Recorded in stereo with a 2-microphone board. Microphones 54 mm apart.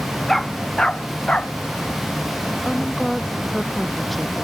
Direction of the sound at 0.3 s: 10° left (ahead or behind).